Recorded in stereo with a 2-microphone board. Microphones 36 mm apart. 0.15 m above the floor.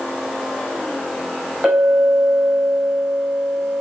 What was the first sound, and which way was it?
A clink, 25° right (ahead or behind).